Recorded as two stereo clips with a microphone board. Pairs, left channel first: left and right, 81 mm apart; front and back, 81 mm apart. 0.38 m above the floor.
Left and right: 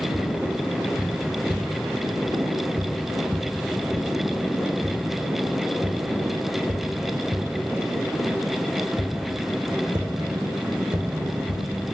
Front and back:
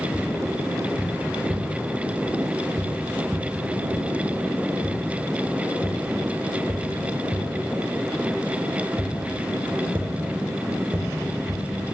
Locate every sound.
0.1 s tapping: 115° right, 6.5 m